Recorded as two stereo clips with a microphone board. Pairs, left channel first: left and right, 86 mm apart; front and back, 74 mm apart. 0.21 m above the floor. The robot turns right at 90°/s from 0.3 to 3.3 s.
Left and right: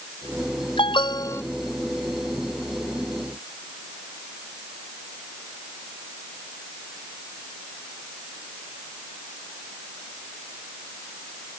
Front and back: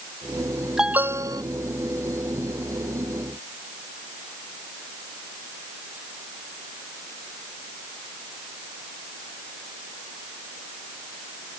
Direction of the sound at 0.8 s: 95° left.